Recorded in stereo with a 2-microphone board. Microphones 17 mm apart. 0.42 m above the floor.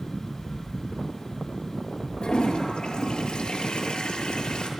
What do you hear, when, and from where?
2.2 s a toilet flushing: 65° left (ahead or behind), 6.5 m